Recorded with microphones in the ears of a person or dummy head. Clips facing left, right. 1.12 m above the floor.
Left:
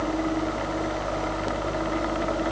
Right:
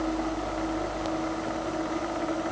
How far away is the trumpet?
No trumpet in this recording.